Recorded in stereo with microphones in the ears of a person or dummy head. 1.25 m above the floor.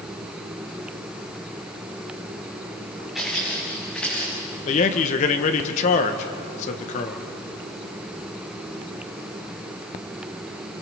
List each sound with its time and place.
3.1 s footsteps: centre (ahead or behind), 7 m; by 4.3 s 5° left (ahead or behind), 7.5 m
4.7 s a man speaking: 40° left (ahead or behind), 1.3 m